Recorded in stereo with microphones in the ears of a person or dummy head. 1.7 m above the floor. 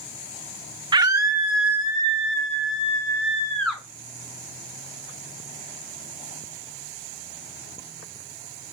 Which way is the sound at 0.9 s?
25° right (ahead or behind).